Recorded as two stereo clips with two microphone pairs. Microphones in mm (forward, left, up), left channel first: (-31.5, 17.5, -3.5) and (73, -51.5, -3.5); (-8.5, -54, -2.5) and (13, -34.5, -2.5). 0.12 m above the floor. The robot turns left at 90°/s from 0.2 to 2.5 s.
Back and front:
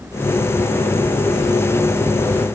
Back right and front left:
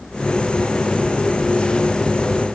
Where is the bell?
I don't hear a bell.